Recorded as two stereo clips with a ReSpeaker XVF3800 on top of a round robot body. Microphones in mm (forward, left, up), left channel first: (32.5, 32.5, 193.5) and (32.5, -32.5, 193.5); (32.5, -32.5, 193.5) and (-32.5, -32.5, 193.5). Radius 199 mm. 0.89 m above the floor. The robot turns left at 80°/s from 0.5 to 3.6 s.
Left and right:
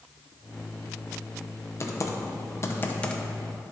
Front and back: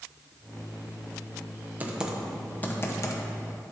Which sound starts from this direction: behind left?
Typing on a keyboard, at 1.8 s.